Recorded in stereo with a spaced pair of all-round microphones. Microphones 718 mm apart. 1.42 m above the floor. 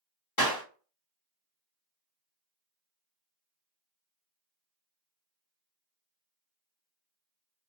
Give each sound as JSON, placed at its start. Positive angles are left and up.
{"t": 0.4, "sound": "a clap", "side_deg": 30, "distance_m": 1.1}